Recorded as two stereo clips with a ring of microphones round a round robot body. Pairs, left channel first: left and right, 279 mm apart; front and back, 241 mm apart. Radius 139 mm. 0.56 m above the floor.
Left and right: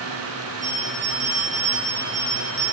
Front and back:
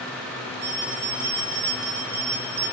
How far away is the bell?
About 7 m.